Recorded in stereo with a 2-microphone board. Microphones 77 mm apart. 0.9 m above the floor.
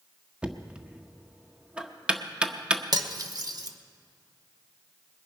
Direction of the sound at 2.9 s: 50° right (ahead or behind).